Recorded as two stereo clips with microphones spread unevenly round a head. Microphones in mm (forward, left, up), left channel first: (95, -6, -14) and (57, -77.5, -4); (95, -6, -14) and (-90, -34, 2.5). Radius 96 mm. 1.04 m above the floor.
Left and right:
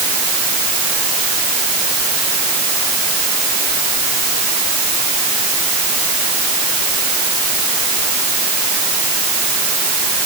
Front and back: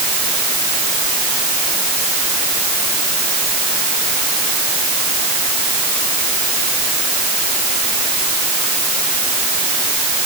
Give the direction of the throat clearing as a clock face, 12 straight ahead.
I don't hear throat clearing.